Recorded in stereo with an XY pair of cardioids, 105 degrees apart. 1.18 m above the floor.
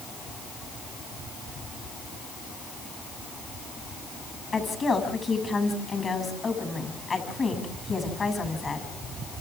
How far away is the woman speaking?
About 8 m.